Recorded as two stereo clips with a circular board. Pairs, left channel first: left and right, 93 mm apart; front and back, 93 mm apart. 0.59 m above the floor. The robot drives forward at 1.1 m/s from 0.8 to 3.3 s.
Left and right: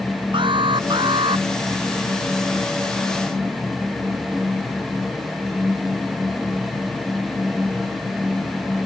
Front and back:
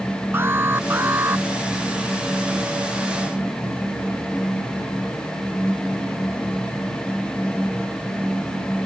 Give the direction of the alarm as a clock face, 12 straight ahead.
4 o'clock.